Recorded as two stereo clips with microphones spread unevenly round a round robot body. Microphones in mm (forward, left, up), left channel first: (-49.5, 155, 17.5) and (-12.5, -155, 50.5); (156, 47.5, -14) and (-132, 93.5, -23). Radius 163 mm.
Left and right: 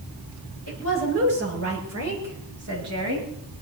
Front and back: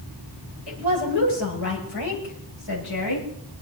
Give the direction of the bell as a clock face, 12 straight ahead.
I don't hear a bell.